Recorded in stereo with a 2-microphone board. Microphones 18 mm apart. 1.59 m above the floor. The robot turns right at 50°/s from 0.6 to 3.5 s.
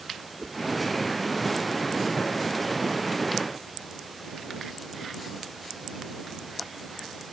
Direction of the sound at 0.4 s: 5° left (ahead or behind).